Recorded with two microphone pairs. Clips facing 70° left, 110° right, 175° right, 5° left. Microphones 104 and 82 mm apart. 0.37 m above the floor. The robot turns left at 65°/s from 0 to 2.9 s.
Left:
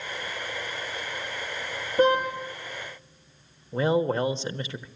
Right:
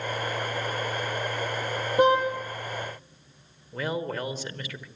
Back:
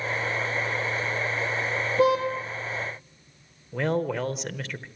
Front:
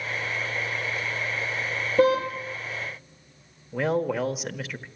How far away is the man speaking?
About 1.1 m.